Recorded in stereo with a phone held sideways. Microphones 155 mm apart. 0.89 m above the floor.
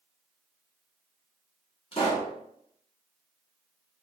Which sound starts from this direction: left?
A pop, at 1.9 s.